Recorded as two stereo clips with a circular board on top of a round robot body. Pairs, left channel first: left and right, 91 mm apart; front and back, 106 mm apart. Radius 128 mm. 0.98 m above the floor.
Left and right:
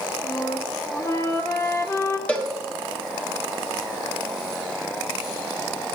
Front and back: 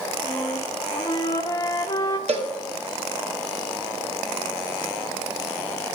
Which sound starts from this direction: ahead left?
A flute, at 0.2 s.